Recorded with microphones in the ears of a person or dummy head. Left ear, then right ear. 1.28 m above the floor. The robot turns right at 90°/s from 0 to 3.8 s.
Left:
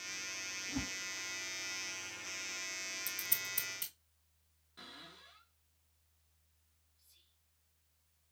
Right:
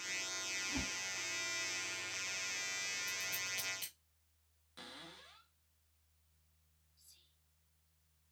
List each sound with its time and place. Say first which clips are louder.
0.7 s a whoosh: right 1 dB; 25° right (ahead or behind), 3.5 m; by 1.0 s centre (ahead or behind), 3.5 m
3.1 s scissors: right 1 dB; 65° left (ahead or behind), 0.8 m; by 3.9 s 10° left (ahead or behind), 0.8 m
4.8 s a cupboard door: even; 25° right (ahead or behind), 1.1 m
7.0 s whispering: right 3 dB; 80° right, 3 m